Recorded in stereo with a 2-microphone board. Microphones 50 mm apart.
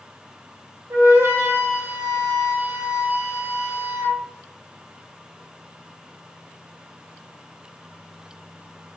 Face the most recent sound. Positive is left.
turn(degrees=-75)  # may be behind; listen again after turning